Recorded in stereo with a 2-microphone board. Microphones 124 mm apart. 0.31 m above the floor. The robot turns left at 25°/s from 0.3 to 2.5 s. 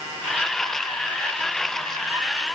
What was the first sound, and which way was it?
Only background noise.